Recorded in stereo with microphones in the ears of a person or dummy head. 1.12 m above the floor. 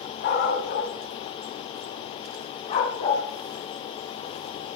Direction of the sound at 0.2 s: 60° left (ahead or behind).